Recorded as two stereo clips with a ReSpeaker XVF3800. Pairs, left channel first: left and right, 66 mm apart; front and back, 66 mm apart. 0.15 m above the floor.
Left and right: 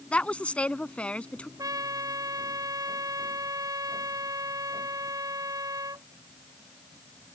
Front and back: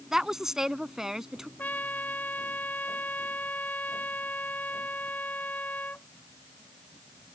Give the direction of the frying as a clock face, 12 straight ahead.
No frying in this recording.